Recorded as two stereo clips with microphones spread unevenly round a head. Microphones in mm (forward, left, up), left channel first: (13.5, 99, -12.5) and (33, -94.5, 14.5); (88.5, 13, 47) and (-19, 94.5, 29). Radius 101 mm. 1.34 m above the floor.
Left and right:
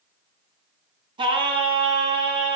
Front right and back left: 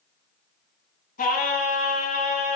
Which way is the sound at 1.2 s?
25° right.